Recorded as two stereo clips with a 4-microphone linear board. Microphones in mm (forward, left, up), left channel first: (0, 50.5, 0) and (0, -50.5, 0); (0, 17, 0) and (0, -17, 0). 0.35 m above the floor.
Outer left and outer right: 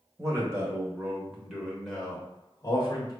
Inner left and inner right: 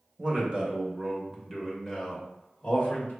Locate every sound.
0.2 s a man speaking: 35° right (ahead or behind), 1.4 m; by 3.1 s 40° left (ahead or behind), 1.1 m